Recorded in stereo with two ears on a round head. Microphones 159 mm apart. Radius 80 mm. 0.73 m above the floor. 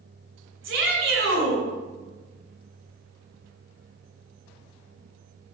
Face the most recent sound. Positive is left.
turn(degrees=-80)